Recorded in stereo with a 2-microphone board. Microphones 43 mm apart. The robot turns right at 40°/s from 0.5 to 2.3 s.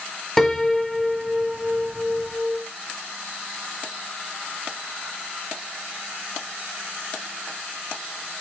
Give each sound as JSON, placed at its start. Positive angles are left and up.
{"t": 0.4, "sound": "a piano", "side_deg": 10, "distance_m": 0.6}